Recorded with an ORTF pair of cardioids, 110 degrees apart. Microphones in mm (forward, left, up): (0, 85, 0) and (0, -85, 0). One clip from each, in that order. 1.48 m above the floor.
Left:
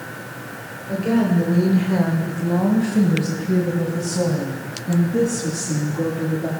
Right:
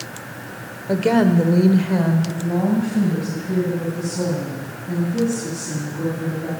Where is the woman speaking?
65° right, 0.8 m; by 6.5 s 45° left, 3.5 m.